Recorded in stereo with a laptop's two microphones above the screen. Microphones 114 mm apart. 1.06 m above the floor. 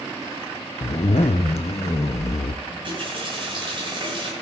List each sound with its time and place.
0.8 s a zipper: 70° left (ahead or behind), 0.5 m
2.6 s a running tap: 50° right (ahead or behind), 8.5 m